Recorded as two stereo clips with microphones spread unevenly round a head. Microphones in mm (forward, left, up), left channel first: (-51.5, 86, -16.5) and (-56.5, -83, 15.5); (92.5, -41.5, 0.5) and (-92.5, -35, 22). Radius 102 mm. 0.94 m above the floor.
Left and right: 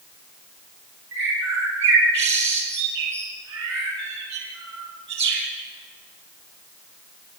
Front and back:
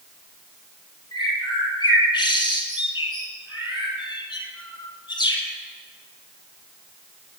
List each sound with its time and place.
1.1 s a bird: 70° right, 4.5 m